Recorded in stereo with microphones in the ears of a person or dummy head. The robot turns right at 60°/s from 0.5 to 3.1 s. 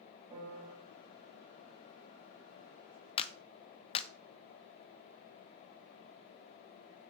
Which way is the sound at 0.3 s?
30° right (ahead or behind).